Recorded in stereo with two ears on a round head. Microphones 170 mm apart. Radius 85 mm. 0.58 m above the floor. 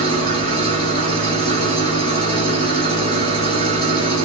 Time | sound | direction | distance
0.0 | an engine running | 25° left (ahead or behind) | 5.5 m